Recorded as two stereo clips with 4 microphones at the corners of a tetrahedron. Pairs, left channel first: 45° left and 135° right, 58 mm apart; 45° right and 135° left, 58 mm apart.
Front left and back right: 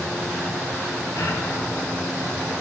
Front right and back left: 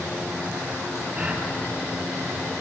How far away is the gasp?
About 6 m.